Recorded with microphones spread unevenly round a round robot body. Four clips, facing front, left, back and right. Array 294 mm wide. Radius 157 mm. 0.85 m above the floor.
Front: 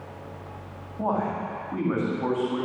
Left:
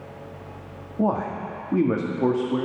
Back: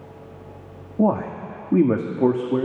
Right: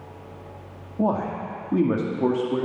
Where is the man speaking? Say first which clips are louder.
Even, back 5 dB; straight behind, 2 m.